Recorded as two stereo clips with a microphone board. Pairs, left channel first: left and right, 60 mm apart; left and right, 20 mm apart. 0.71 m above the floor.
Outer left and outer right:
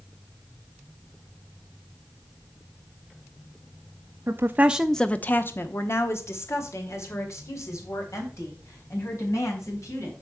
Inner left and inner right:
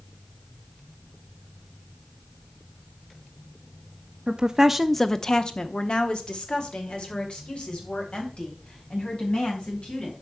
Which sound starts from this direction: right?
A woman speaking, at 4.3 s.